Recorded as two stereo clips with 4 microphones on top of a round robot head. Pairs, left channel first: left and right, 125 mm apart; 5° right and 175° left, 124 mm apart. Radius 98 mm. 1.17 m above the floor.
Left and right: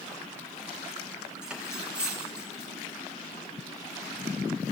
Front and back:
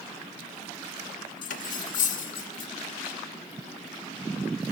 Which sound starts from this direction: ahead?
Cutlery clinking, at 1.4 s.